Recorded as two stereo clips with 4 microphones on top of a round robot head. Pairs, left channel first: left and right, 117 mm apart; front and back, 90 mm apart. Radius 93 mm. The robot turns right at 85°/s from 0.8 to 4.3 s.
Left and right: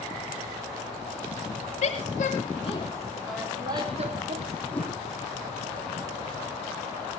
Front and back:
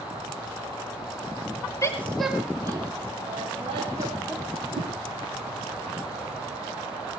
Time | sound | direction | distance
1.8 | a woman speaking | 55° left | 3 m
4.7 | a whoosh | 165° left | 7 m